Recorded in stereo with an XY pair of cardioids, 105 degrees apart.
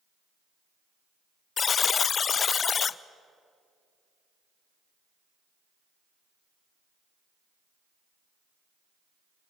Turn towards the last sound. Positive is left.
turn(degrees=45)